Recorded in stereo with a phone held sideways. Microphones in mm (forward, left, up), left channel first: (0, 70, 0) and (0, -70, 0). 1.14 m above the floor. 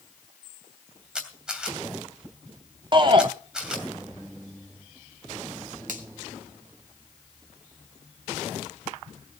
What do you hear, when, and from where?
1.1 s a camera shutter: 5° right (ahead or behind), 2.5 m
2.9 s a shout: 35° right (ahead or behind), 0.7 m
5.9 s a finger snap: 65° right (ahead or behind), 2.5 m